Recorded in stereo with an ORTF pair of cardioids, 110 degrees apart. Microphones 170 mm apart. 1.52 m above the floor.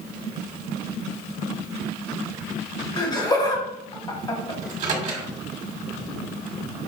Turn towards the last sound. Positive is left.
turn(degrees=-45)